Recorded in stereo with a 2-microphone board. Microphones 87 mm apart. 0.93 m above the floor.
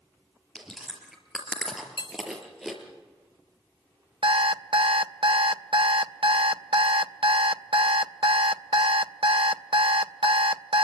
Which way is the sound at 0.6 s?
5° right (ahead or behind).